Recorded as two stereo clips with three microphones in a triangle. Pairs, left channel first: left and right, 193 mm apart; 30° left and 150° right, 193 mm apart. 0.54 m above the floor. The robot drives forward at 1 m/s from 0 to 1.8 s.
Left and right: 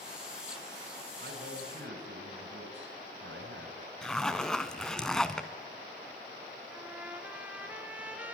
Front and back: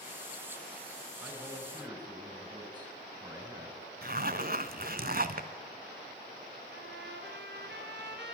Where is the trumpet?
170° right, 2.5 m.